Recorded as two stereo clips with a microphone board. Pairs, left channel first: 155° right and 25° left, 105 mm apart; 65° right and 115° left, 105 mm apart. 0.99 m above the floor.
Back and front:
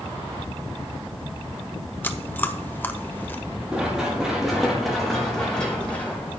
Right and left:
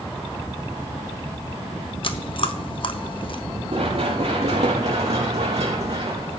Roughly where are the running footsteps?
Left.